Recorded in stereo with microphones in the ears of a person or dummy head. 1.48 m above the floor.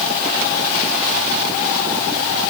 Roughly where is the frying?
No frying in this recording.